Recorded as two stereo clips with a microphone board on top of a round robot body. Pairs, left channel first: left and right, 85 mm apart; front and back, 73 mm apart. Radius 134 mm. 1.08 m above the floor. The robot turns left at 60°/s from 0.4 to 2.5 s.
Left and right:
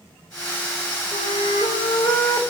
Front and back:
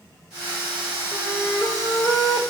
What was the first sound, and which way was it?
A flute, 120° left.